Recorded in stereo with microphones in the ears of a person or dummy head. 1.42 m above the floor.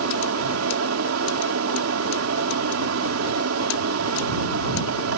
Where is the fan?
85° right.